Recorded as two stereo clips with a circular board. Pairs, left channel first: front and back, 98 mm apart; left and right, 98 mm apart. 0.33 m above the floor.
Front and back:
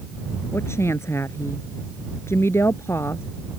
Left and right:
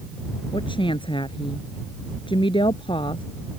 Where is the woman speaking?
60° left.